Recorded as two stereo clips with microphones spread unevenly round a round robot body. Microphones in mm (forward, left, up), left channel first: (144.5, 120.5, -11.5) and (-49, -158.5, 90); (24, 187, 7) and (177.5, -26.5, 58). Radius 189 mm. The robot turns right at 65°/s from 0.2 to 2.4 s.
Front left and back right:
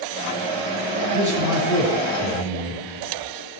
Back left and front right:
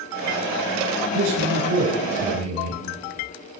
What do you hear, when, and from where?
1.1 s a man speaking: 65° right, 5.5 m; by 2.8 s 20° left, 5.5 m